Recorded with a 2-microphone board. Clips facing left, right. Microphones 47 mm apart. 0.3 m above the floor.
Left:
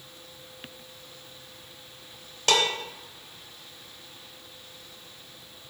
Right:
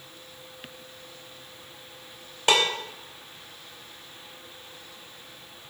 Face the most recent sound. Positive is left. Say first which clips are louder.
# right 1 dB
turn(degrees=-20)  # may be behind; listen again after turning